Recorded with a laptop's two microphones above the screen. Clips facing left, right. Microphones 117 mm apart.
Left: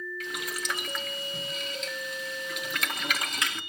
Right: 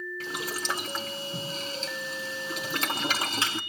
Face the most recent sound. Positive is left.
turn(degrees=-30)  # may be behind; listen again after turning